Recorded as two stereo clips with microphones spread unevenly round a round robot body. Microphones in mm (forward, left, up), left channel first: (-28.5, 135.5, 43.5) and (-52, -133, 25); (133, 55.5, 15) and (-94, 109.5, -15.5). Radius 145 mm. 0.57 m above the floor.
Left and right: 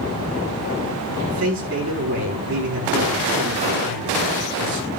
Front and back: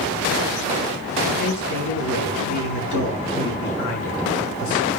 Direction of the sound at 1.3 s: 45° right.